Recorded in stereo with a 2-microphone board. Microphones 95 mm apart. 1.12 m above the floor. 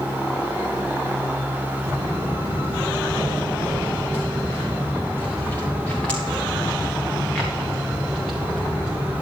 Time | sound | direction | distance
1.9 | footsteps | 40° left (ahead or behind) | 4 m